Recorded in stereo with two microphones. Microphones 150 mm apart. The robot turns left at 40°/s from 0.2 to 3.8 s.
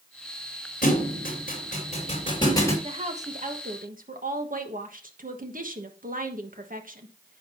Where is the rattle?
No rattle in this recording.